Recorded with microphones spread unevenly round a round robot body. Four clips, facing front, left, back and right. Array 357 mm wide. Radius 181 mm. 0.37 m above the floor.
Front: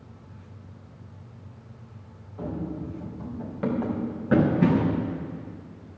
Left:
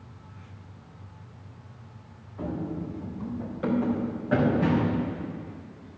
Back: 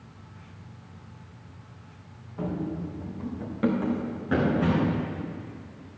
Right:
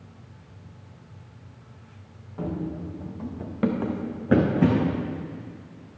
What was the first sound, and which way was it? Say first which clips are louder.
Running footsteps: right 1 dB, back 1 dB; 120° right.